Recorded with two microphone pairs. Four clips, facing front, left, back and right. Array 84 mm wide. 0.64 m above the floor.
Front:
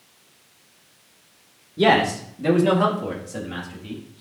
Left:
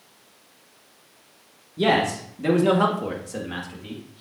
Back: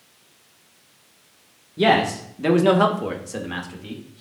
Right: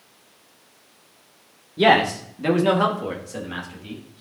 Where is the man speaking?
110° right, 1.0 m; by 4.2 s 160° left, 2 m.